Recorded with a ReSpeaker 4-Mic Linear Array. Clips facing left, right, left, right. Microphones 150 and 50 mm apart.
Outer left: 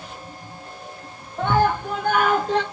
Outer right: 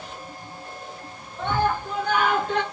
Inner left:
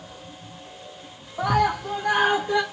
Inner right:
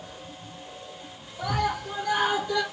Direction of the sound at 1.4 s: 75° left (ahead or behind).